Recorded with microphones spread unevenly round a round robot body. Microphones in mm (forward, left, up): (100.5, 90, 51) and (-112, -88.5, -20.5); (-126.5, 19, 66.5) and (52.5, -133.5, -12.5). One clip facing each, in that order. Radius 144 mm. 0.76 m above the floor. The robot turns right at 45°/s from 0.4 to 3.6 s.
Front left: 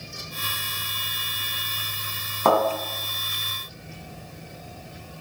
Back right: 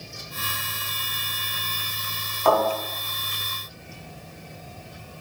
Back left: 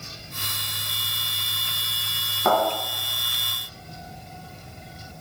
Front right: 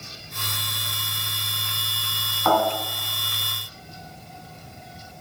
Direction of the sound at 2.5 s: 70° left.